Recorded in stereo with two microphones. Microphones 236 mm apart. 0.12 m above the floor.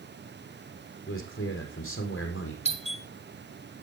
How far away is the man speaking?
About 4.5 m.